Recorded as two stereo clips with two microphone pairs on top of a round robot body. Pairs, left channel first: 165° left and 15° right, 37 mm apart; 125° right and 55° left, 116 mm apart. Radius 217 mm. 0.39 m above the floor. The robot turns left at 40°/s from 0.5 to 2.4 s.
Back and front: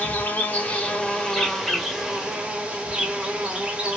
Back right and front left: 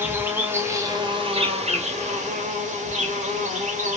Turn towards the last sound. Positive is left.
turn(degrees=50)